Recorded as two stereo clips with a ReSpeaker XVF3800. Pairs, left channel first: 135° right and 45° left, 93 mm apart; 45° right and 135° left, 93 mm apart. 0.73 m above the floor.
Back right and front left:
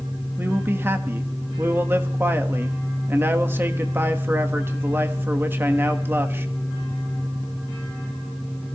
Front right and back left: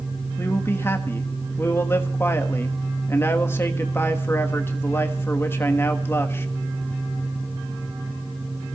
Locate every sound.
0.4 s a man speaking: 5° right, 1.2 m